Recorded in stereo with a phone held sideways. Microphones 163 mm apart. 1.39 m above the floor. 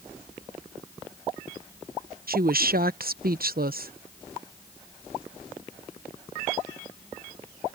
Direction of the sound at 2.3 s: 65° right (ahead or behind).